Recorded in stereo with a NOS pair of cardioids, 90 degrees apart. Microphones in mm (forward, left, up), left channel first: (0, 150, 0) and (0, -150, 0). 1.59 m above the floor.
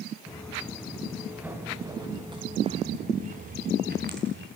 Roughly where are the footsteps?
Ahead.